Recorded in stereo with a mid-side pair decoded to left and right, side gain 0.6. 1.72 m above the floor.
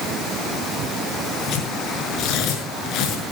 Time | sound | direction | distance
1.5 | tearing paper | 60° left | 6 m